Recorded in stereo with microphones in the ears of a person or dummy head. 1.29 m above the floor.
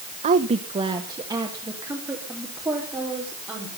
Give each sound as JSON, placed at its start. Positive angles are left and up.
{"t": 0.2, "sound": "a woman speaking", "side_deg": -45, "distance_m": 0.9}